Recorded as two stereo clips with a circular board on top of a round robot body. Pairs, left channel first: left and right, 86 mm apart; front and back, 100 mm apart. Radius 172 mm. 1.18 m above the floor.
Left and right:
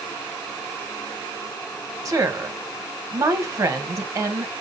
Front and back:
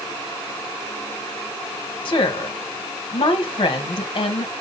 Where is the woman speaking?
40° right, 1.1 m.